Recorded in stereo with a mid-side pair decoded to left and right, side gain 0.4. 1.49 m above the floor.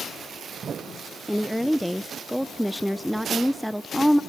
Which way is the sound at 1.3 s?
Straight ahead.